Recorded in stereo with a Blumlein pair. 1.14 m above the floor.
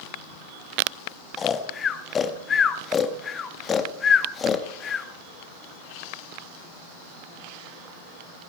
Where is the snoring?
20° left, 1.4 m.